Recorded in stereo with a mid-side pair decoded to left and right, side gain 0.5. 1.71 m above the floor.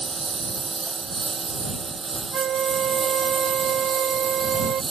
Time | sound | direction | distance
0.0 | a lawn mower | 25° right | ?
2.3 | a flute | 65° right | ?